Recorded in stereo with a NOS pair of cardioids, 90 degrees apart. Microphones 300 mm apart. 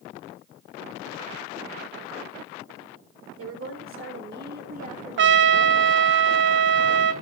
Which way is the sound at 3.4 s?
50° right.